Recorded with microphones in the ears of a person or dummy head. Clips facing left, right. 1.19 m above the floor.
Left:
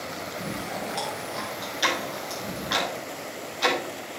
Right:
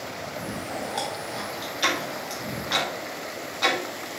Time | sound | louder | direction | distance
0.3 | chewing | right 1 dB | 10° left (ahead or behind) | 4.5 m
1.8 | ticking | even | 10° left (ahead or behind) | 1.9 m